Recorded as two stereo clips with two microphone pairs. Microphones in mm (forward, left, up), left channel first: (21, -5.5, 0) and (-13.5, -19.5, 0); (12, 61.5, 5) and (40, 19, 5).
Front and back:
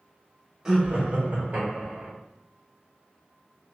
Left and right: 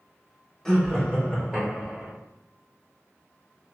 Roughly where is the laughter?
Behind.